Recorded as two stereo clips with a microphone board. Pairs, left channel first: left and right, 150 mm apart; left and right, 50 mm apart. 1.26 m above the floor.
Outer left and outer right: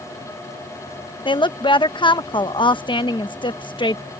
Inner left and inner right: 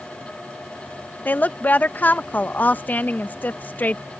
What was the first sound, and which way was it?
A woman speaking, 35° left (ahead or behind).